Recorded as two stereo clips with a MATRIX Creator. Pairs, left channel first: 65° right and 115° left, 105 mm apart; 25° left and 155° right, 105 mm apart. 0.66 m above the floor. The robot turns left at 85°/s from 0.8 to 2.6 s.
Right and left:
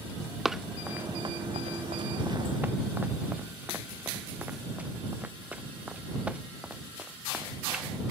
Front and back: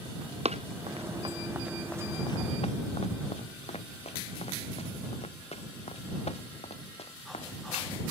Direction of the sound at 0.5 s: 160° right.